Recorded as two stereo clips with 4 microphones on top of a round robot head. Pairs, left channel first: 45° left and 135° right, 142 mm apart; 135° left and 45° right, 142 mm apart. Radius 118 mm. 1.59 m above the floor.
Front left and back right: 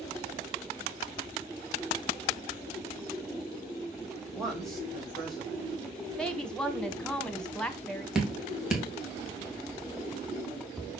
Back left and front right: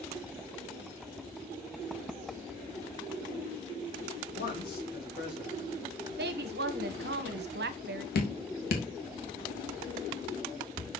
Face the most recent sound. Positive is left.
turn(degrees=140)